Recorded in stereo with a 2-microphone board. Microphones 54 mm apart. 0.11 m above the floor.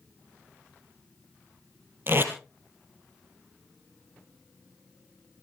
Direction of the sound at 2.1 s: 40° right (ahead or behind).